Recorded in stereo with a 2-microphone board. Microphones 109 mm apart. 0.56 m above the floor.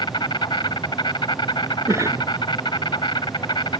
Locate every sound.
0.0 s an insect: 45° left (ahead or behind)
1.9 s a cough: 25° right (ahead or behind)